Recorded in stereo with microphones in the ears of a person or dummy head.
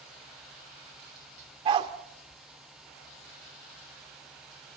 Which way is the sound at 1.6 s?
35° right (ahead or behind).